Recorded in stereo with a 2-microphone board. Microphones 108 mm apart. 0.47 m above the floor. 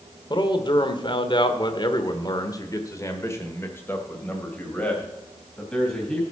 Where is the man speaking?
40° left (ahead or behind), 1.5 m; by 6.2 s 10° left (ahead or behind), 3 m.